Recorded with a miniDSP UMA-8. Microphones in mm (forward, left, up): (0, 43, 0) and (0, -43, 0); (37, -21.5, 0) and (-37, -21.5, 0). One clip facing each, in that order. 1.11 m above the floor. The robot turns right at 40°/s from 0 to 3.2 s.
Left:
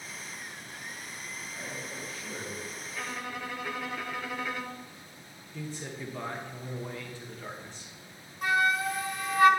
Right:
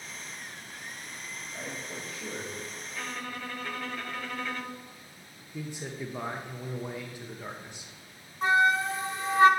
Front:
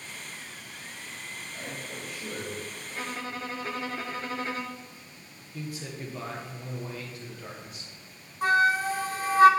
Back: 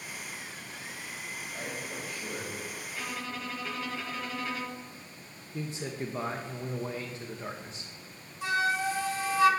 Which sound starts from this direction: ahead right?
A flute, at 8.4 s.